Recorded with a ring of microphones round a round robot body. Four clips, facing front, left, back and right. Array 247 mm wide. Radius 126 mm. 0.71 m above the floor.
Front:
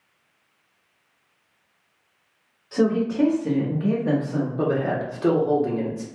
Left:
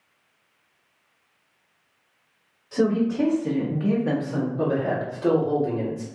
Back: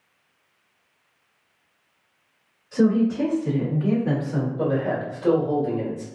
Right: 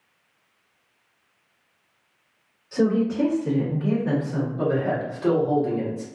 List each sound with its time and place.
2.7 s a woman speaking: 15° left, 1.4 m; by 4.5 s 115° left, 1.1 m
4.6 s a man speaking: straight ahead, 1.1 m